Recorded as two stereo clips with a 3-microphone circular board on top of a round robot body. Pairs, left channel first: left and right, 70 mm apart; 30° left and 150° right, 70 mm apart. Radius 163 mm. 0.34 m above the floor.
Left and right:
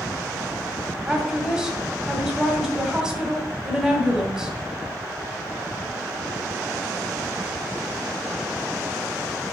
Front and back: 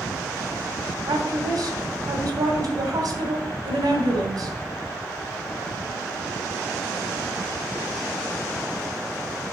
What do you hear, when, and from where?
1.1 s a woman speaking: 170° right, 2.5 m